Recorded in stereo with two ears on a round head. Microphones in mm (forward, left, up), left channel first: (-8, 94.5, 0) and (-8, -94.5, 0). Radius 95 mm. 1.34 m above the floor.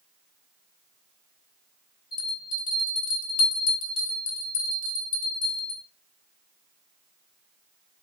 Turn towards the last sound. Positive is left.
turn(degrees=70)  # may be behind; listen again after turning